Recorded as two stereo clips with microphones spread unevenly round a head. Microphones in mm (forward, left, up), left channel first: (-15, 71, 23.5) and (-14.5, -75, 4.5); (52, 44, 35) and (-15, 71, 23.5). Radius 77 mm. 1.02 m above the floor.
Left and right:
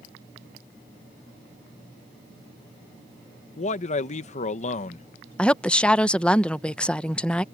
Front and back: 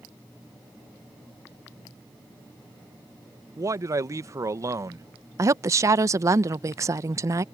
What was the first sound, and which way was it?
A man speaking, 130° left.